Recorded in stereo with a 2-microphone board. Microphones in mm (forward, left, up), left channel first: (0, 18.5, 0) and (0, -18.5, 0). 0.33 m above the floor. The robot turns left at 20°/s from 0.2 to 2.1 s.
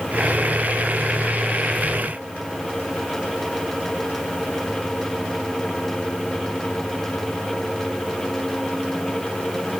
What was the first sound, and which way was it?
Only background noise.